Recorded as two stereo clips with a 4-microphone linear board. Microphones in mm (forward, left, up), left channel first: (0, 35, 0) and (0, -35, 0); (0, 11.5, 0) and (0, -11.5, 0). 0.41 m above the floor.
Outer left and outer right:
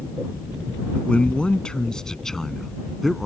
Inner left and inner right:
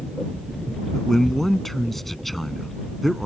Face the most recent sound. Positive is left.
turn(degrees=0)  # may be behind; listen again after turning